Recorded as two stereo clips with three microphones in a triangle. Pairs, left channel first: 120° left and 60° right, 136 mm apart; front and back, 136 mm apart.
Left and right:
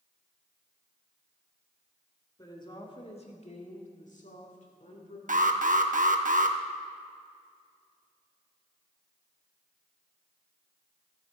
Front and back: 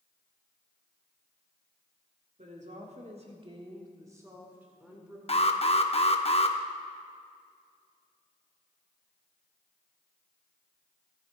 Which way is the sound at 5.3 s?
45° right.